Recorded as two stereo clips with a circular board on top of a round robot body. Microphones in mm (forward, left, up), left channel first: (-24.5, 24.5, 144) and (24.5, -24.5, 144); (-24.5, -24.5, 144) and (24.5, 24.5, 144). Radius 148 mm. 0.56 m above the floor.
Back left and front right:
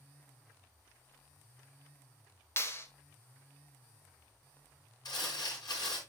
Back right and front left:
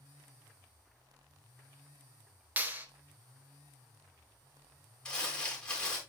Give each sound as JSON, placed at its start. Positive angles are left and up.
{"t": 2.6, "sound": "a clap", "azimuth_deg": 100, "distance_m": 1.3}
{"t": 5.0, "sound": "crumpling", "azimuth_deg": 145, "distance_m": 3.5}